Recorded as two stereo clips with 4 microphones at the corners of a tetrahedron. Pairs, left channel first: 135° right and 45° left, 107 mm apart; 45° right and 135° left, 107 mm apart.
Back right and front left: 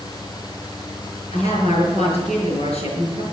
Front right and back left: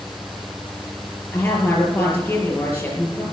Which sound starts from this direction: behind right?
A woman speaking, at 1.3 s.